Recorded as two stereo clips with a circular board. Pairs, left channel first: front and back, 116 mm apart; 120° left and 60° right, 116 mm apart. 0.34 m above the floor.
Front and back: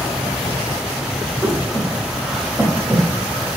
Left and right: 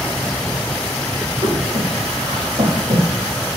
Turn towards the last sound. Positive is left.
turn(degrees=-90)